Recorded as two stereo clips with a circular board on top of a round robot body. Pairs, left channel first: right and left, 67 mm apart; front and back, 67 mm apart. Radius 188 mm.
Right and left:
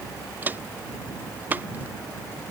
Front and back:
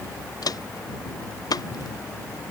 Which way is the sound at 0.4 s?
25° left.